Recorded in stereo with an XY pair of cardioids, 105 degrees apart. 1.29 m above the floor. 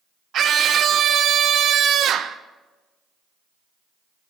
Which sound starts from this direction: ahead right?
A scream, at 0.3 s.